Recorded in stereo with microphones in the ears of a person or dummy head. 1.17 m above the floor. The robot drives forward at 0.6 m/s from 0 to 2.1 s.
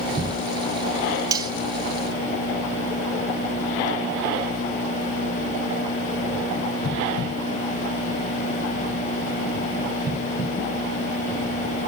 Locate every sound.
1.3 s cutlery clinking: 20° right (ahead or behind), 0.7 m; by 1.5 s 25° right (ahead or behind), 0.6 m